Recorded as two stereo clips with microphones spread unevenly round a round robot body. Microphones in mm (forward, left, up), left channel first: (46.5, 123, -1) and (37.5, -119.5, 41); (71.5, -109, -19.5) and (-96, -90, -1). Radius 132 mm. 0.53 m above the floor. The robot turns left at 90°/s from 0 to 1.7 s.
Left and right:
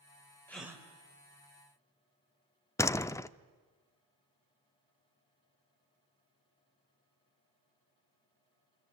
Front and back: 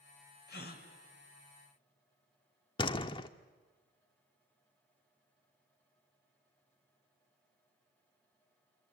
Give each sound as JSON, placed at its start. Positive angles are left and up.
{"t": 0.5, "sound": "a gasp", "azimuth_deg": 10, "distance_m": 3.0}
{"t": 2.8, "sound": "a door slam", "azimuth_deg": 30, "distance_m": 0.6}